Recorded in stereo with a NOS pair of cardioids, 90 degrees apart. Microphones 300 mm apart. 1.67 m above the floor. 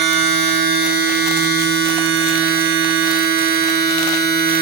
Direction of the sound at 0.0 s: 35° right.